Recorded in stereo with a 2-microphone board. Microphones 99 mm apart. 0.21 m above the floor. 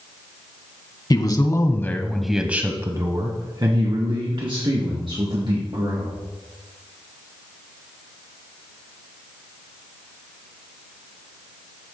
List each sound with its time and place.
1.1 s a man speaking: 45° left (ahead or behind), 1.5 m; by 6.1 s 65° right (ahead or behind), 4 m